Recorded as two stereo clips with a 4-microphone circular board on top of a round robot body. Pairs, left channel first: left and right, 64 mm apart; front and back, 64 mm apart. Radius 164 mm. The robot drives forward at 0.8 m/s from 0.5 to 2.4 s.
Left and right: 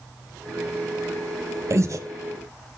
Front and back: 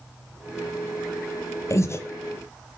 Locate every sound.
1.7 s breathing: 45° right, 1.3 m; by 2.0 s 55° right, 1.2 m